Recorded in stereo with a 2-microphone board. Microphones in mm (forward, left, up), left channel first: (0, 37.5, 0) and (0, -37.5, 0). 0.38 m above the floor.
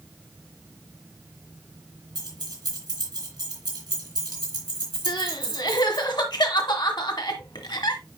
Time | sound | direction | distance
2.1 | keys jangling | 75° right (ahead or behind) | 3 m
5.1 | crying | 75° left (ahead or behind) | 1.4 m